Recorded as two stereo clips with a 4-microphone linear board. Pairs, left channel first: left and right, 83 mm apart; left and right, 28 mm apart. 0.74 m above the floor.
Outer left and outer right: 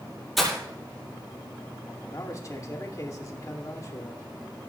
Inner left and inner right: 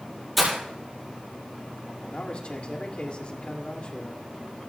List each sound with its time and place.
0.4 s breaking glass: centre (ahead or behind), 5.5 m
2.1 s a man speaking: 40° left (ahead or behind), 2 m